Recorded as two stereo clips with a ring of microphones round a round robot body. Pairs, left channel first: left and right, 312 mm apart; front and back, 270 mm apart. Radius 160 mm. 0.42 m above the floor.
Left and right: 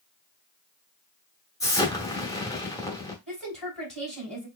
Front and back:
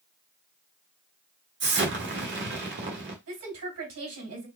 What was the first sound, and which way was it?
An explosion, 165° left.